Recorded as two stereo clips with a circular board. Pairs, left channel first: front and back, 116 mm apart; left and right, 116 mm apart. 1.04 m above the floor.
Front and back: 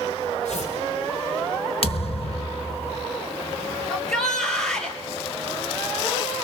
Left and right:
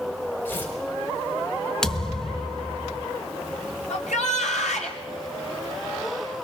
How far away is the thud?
About 1.2 m.